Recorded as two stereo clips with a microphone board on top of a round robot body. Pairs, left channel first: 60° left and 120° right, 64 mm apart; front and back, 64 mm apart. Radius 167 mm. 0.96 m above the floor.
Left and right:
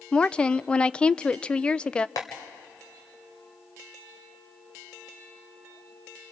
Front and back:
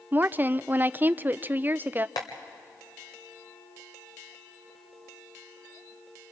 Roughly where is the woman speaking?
Behind left.